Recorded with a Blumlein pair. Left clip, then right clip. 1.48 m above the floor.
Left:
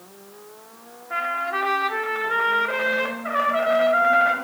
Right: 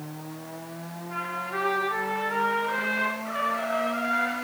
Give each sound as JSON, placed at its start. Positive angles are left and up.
{"t": 1.1, "sound": "a trumpet", "azimuth_deg": 20, "distance_m": 1.4}